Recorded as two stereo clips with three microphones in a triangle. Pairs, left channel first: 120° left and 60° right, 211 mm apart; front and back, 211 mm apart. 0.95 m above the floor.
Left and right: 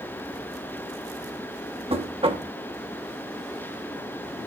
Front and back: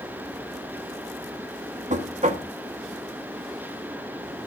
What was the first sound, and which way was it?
Knocking, 120° right.